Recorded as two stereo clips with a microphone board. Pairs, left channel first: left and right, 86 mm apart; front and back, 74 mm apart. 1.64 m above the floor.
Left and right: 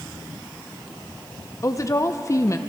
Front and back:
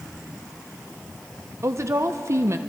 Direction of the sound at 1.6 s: 135° left.